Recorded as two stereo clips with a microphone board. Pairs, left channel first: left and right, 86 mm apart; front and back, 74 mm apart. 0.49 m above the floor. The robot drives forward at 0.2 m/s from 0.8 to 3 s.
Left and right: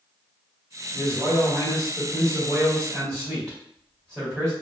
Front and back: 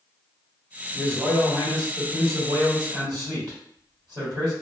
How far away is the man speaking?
About 1.2 m.